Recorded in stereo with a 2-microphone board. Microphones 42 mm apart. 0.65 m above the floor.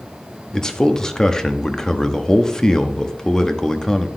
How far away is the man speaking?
About 0.7 m.